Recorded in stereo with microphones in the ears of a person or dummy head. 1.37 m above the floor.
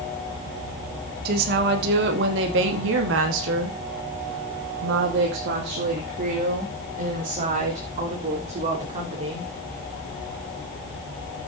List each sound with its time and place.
1.2 s a woman speaking: 60° right (ahead or behind), 2.5 m; by 9.5 s 35° right (ahead or behind), 3.5 m